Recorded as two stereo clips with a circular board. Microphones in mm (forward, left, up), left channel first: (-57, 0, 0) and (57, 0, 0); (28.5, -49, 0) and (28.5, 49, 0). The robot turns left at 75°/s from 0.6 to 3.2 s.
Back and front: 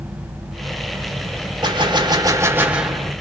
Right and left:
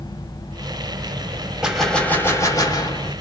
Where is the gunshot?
15° left, 0.8 m; by 3.1 s 100° right, 0.8 m.